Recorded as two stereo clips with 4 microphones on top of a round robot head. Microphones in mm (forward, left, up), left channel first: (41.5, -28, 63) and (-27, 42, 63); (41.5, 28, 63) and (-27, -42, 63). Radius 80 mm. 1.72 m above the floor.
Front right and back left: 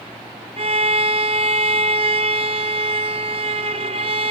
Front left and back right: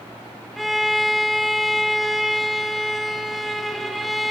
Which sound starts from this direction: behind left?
A violin, at 0.6 s.